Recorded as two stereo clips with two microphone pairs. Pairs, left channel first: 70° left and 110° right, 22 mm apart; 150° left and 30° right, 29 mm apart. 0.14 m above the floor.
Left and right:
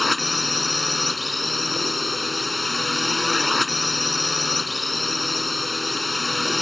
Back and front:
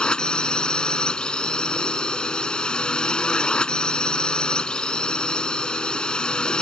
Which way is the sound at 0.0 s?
165° left.